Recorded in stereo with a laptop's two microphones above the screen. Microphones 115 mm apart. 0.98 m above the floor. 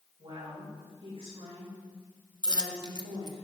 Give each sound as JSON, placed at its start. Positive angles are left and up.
{"t": 0.2, "sound": "a woman speaking", "side_deg": -55, "distance_m": 4.0}
{"t": 2.4, "sound": "a dropped coin", "side_deg": -35, "distance_m": 0.5}